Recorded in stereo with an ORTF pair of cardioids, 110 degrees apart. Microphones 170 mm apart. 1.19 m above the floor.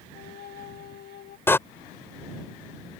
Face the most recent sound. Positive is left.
turn(degrees=15)